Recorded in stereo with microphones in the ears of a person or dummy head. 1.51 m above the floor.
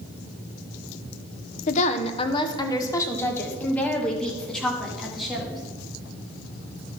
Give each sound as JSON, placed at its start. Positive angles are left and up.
{"t": 1.7, "sound": "a woman speaking", "side_deg": 45, "distance_m": 0.7}